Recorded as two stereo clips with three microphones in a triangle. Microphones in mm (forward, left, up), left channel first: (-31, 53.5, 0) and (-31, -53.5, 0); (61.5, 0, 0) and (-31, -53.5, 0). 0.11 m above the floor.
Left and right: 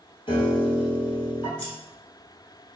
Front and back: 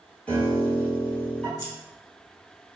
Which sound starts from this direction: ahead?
Scissors, at 1.6 s.